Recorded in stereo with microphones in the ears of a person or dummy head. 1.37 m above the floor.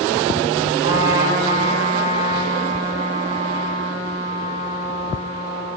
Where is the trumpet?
45° right (ahead or behind), 2.5 m.